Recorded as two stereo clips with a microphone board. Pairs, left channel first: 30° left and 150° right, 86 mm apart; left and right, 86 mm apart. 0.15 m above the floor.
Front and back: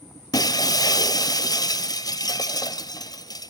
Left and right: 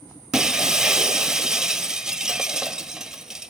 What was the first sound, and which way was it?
Breaking glass, 5° right.